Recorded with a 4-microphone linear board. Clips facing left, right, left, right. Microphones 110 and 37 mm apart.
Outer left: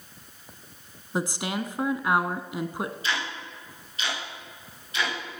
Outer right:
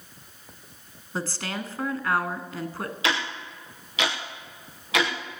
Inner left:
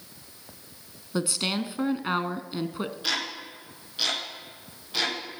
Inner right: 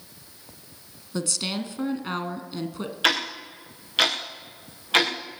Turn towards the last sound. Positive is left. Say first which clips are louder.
# outer right 3 dB, inner right 10 dB
turn(degrees=-85)